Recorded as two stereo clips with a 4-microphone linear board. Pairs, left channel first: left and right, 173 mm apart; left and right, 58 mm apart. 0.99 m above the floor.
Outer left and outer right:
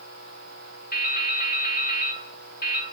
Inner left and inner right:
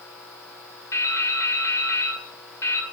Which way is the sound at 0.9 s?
60° left (ahead or behind).